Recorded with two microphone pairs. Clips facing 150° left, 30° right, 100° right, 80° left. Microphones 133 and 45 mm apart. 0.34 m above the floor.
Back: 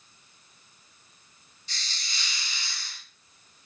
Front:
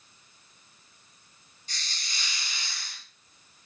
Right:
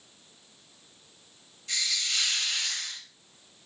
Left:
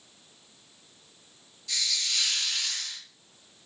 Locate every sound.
1.7 s a hiss: 55° right, 0.9 m